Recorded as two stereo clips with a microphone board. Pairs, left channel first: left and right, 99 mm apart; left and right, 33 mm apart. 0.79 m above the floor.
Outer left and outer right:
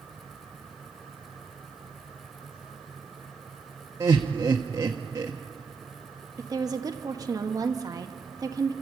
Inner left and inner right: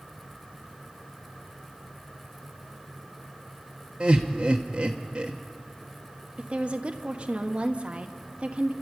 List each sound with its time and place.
4.0 s laughter: 30° right (ahead or behind), 1.1 m
6.4 s a woman speaking: 40° right (ahead or behind), 1.2 m